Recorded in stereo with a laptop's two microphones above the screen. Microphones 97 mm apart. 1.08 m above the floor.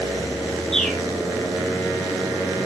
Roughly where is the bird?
Centre.